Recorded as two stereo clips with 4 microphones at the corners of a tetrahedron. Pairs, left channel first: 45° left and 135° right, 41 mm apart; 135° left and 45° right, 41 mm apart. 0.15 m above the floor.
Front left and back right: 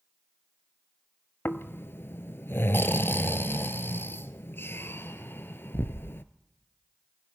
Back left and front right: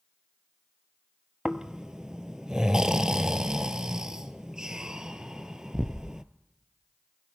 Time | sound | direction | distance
1.4 | snoring | 30° left | 0.8 m